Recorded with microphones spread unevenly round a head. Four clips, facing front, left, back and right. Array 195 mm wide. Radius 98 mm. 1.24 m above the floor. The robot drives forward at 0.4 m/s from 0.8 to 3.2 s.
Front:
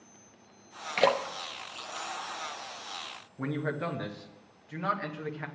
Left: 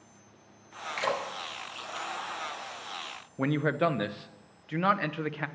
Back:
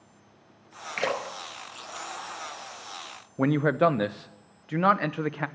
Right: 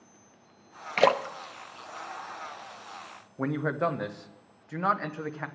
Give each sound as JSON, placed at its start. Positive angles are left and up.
{"t": 1.0, "sound": "a splash", "azimuth_deg": -80, "distance_m": 0.8}
{"t": 3.4, "sound": "a man speaking", "azimuth_deg": 180, "distance_m": 0.7}